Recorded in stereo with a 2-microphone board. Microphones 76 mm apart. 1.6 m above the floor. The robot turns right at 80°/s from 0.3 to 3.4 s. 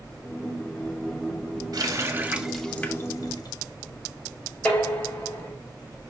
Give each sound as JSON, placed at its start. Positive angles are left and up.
{"t": 1.7, "sound": "a running tap", "side_deg": -55, "distance_m": 1.7}
{"t": 4.7, "sound": "dishes clattering", "side_deg": 20, "distance_m": 5.0}